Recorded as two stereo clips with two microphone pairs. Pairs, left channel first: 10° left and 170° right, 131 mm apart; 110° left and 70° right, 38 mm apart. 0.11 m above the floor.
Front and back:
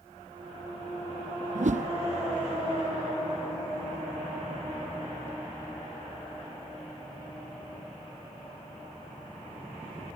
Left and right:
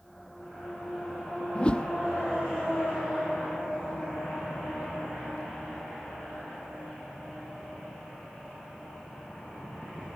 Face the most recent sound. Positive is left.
turn(degrees=175)